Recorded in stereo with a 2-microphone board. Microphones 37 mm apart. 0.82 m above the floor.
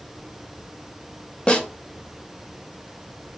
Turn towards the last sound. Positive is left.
turn(degrees=30)  # may be behind; listen again after turning